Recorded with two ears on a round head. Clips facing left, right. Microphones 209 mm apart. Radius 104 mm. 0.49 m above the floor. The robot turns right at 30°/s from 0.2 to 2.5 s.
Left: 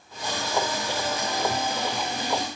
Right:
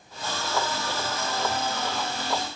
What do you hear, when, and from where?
Only background noise.